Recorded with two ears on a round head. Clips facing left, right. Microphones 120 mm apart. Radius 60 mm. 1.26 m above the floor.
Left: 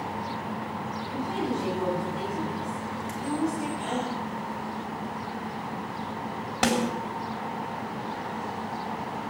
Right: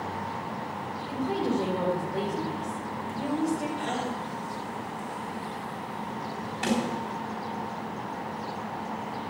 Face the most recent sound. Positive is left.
turn(degrees=70)  # may be behind; listen again after turning